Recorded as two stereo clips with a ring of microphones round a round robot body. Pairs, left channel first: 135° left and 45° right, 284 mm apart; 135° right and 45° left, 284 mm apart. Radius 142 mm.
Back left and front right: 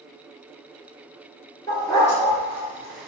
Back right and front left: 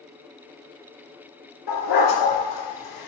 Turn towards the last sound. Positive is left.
turn(degrees=-135)